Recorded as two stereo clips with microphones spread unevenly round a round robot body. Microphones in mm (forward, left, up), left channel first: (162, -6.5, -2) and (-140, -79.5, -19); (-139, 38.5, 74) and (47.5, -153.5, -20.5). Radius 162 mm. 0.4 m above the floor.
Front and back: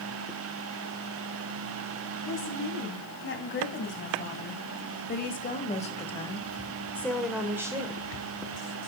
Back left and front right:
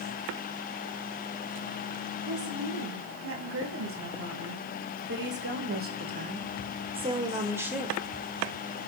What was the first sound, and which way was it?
A woman speaking, 35° right.